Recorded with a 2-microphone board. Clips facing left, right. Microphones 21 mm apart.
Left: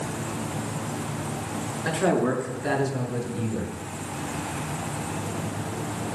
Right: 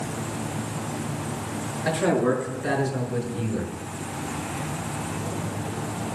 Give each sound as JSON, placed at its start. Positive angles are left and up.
{"t": 1.9, "sound": "a man speaking", "side_deg": 15, "distance_m": 6.0}